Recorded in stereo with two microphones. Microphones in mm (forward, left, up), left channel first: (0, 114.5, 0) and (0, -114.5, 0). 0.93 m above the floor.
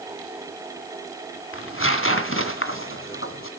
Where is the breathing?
No breathing in this recording.